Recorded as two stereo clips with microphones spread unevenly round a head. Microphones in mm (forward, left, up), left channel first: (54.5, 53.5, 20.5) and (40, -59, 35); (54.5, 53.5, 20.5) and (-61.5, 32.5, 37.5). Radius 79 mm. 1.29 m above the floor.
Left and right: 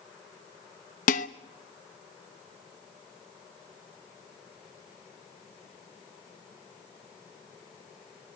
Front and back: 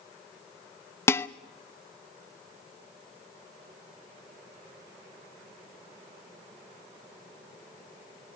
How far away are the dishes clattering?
About 0.8 m.